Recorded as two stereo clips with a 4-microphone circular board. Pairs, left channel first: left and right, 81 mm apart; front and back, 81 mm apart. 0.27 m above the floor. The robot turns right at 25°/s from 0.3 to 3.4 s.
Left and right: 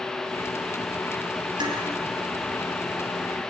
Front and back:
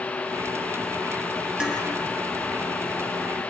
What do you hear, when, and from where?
1.6 s dishes clattering: 100° right, 4 m; by 1.8 s 95° right, 4 m